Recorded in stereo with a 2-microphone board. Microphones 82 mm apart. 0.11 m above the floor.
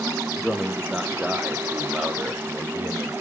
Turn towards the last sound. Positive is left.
turn(degrees=-25)  # may be behind; listen again after turning